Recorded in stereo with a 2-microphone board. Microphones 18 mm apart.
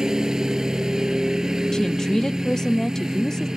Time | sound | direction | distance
0.0 | a lawn mower | 40° right (ahead or behind) | ?
1.7 | a woman speaking | 35° left (ahead or behind) | ?